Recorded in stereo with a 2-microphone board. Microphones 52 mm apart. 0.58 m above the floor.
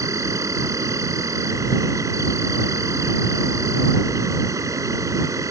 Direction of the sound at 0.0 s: 85° right.